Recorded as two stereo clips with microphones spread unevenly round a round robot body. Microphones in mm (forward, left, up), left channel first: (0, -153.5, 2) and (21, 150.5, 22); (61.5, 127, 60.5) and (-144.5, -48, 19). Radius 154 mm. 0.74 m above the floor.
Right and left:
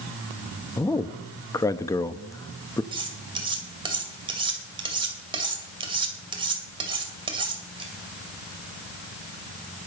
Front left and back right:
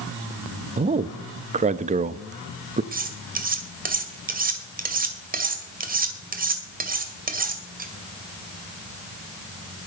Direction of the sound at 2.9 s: 160° left.